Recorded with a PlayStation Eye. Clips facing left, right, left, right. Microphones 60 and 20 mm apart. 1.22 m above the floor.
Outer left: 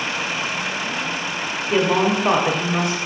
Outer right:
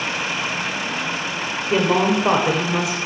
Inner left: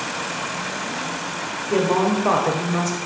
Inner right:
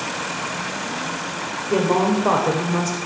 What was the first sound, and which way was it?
A woman speaking, 5° right (ahead or behind).